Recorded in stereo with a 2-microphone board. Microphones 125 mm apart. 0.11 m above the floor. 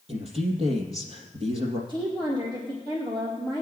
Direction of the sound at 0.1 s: 55° right (ahead or behind).